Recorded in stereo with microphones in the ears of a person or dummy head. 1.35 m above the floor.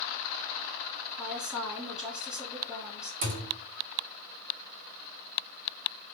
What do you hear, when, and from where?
1.2 s a woman speaking: 5° right (ahead or behind), 1.6 m
3.2 s a thud: 45° right (ahead or behind), 1.1 m